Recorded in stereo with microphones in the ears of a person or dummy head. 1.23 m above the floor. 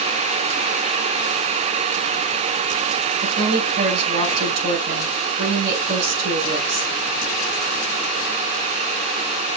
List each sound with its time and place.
3.2 s a woman speaking: 65° right (ahead or behind), 4.5 m